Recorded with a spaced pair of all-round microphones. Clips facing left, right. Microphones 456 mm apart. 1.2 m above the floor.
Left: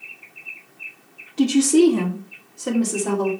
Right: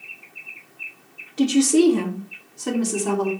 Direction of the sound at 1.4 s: 15° left (ahead or behind).